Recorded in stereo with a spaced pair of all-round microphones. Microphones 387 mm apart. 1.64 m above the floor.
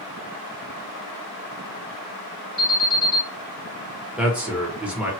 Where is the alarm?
Centre (ahead or behind), 1.9 m.